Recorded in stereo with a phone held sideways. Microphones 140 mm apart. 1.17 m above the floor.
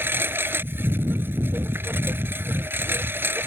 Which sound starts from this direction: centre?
A lawn mower, at 0.0 s.